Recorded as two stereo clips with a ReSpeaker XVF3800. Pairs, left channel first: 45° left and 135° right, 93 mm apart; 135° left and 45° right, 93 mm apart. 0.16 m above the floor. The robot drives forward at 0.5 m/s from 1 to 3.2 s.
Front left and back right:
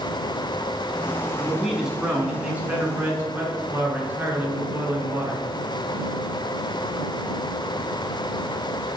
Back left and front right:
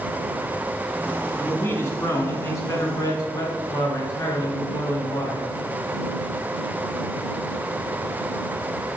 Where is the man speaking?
140° left, 1.5 m; by 5.5 s 165° left, 2 m.